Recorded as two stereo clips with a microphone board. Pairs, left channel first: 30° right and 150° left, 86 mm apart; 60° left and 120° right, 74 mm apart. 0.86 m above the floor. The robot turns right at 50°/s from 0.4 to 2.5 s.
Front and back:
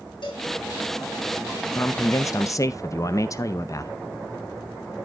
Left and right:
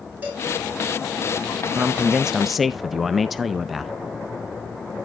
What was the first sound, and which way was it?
A cowbell, 55° right.